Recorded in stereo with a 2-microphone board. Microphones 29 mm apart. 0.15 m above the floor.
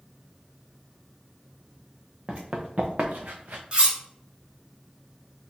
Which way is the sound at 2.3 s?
40° right (ahead or behind).